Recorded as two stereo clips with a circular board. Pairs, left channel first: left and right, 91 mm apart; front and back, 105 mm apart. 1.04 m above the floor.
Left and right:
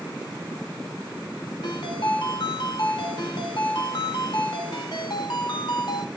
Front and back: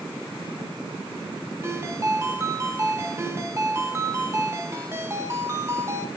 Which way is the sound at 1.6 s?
120° left.